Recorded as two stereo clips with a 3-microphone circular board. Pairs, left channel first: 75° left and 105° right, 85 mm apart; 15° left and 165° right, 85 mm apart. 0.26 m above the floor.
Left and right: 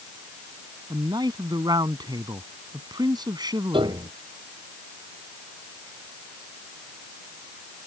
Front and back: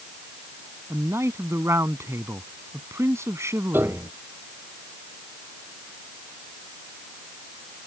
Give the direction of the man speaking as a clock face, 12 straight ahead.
4 o'clock.